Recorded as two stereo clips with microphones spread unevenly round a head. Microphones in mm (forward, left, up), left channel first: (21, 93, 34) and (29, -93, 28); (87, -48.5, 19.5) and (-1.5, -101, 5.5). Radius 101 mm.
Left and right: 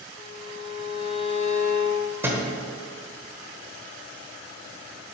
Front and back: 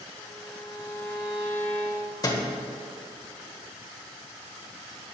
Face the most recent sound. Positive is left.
turn(degrees=-10)